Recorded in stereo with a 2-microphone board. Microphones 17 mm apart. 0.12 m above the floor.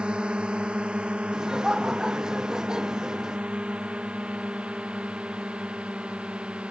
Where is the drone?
65° right (ahead or behind); by 6.7 s 80° right.